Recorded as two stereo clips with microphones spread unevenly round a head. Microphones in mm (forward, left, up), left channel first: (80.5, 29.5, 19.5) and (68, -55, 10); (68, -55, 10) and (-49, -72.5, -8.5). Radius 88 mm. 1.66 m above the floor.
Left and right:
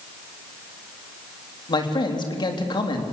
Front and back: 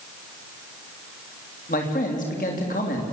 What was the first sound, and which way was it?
A man speaking, 50° left.